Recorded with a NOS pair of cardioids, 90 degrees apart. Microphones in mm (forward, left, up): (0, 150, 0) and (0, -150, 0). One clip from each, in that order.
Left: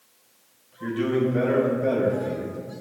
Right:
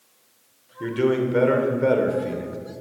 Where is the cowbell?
No cowbell in this recording.